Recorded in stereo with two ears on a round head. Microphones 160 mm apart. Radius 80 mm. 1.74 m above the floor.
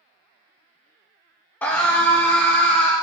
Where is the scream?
10° left (ahead or behind), 0.9 m.